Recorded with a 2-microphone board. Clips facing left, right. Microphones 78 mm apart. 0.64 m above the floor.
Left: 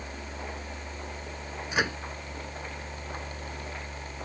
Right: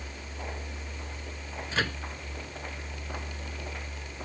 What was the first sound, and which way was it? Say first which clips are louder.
A microwave: left 2 dB; 15° left (ahead or behind).